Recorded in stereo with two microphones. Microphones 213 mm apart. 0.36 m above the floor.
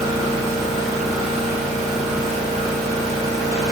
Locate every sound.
0.0 s an engine running: centre (ahead or behind), 1.4 m